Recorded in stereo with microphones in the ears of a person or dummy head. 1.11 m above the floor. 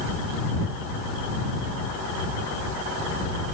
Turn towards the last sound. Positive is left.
No sound to turn to.